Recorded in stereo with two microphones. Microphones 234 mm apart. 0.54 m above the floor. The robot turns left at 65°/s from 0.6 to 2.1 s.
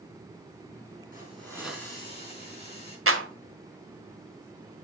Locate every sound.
1.1 s a hiss: 140° right, 4.5 m; by 3.0 s 155° left, 4.5 m
3.1 s a clap: 70° right (ahead or behind), 1.4 m